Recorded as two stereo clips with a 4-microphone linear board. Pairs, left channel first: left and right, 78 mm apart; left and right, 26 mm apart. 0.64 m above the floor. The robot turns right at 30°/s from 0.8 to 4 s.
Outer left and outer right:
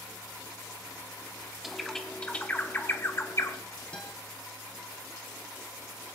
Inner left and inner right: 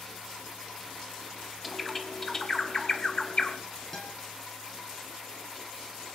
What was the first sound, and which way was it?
A bird, 5° right (ahead or behind).